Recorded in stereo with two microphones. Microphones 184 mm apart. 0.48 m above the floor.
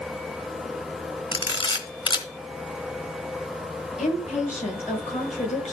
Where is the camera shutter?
25° left (ahead or behind), 2.0 m.